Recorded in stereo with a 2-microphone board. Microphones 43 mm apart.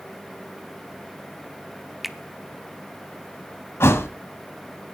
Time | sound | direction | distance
2.0 | a finger snap | centre (ahead or behind) | 0.7 m
3.8 | a thud | 85° left | 1.1 m